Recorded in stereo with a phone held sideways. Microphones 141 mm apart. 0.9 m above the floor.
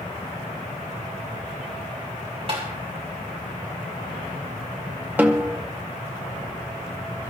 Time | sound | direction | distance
2.5 | tapping | 45° right (ahead or behind) | 5 m
5.2 | a snare drum | 10° right (ahead or behind) | 1.3 m